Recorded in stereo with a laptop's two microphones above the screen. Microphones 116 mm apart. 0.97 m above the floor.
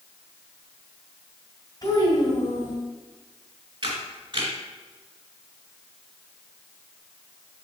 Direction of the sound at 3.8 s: 40° right (ahead or behind).